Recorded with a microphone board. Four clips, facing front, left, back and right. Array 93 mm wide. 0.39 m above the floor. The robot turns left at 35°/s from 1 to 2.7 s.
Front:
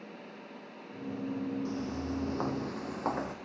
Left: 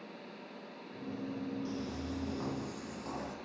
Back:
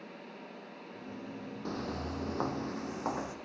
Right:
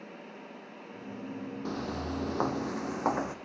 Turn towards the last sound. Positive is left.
turn(degrees=-70)